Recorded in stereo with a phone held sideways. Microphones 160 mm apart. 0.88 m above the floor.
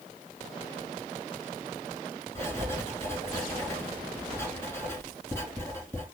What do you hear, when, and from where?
2.4 s writing: 15° left (ahead or behind), 2.5 m